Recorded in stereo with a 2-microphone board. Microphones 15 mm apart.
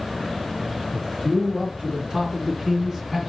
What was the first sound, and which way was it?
A man speaking, 45° right (ahead or behind).